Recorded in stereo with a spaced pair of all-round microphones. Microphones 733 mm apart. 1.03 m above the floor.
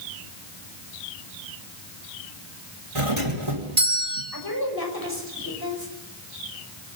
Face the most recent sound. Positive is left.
turn(degrees=30)  # may be behind; listen again after turning